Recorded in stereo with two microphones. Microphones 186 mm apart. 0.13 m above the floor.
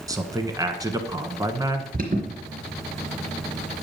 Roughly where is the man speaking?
Centre.